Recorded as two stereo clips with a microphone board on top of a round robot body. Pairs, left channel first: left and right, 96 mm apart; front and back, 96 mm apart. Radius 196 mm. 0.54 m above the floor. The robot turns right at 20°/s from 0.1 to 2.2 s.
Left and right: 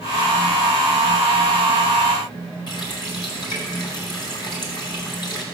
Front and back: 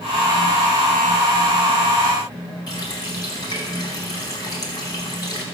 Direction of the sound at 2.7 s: 50° left.